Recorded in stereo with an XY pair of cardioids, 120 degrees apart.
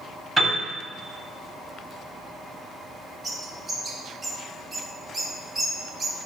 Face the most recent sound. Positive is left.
turn(degrees=-35)